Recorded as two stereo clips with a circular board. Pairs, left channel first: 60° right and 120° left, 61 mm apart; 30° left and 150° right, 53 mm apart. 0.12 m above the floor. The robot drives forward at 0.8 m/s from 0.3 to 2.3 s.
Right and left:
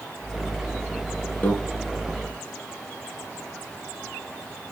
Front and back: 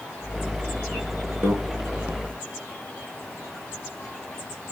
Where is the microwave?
110° right, 2.5 m.